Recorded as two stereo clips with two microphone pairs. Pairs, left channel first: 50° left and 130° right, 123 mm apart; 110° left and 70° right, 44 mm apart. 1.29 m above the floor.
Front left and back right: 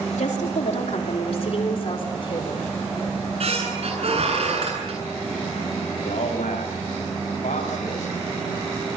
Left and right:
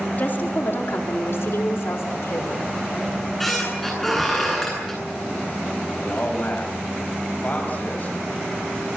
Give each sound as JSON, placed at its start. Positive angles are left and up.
{"t": 0.2, "sound": "a woman speaking", "azimuth_deg": 60, "distance_m": 3.0}
{"t": 3.1, "sound": "a squeak", "azimuth_deg": -170, "distance_m": 9.5}
{"t": 5.9, "sound": "a man speaking", "azimuth_deg": 55, "distance_m": 7.0}